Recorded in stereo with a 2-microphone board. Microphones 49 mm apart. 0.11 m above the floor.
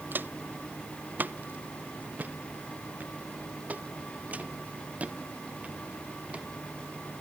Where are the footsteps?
35° right (ahead or behind); by 6.5 s 20° right (ahead or behind).